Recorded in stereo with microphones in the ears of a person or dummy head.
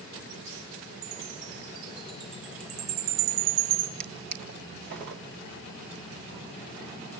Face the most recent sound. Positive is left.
turn(degrees=-55)  # may be behind; listen again after turning